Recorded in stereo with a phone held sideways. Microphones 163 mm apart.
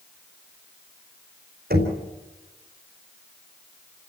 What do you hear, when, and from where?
1.7 s knocking: 65° right (ahead or behind), 4 m